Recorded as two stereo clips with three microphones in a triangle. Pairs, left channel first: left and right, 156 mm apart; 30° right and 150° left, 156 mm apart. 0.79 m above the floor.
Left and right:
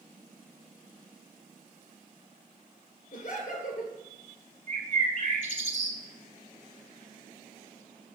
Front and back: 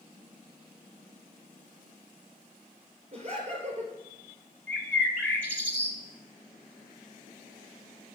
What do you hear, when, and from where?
3.1 s laughter: 105° left, 3 m
4.7 s a bird: 110° right, 1.3 m